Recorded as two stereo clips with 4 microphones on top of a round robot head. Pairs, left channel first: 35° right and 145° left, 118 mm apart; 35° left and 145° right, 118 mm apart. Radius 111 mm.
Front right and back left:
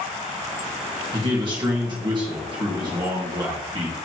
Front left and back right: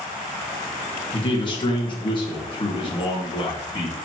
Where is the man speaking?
90° left, 1.6 m.